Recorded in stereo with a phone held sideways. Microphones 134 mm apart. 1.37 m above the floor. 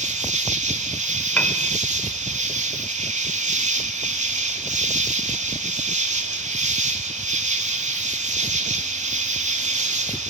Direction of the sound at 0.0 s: 60° right (ahead or behind).